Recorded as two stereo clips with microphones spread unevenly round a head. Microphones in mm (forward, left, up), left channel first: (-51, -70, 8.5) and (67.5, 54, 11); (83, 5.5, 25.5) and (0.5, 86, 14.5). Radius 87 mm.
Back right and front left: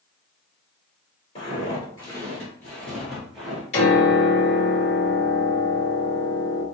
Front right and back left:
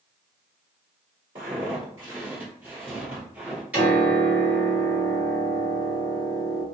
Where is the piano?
145° right, 1.6 m.